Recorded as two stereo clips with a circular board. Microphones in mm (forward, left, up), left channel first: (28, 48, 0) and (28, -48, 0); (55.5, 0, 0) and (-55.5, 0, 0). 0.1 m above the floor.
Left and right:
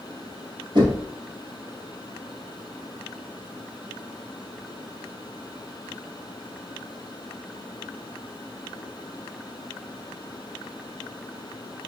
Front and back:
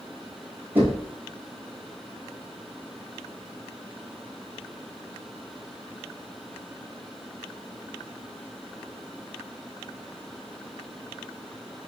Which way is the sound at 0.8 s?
105° right.